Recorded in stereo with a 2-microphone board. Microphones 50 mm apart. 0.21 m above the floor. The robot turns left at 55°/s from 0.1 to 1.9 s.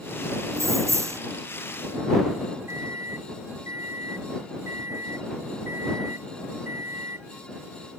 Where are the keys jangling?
75° right; by 1.2 s 115° right.